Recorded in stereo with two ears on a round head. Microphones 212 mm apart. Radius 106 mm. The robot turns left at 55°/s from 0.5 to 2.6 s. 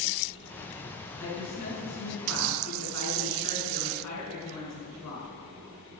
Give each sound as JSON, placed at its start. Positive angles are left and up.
{"t": 1.2, "sound": "a woman speaking", "azimuth_deg": 170, "distance_m": 5.5}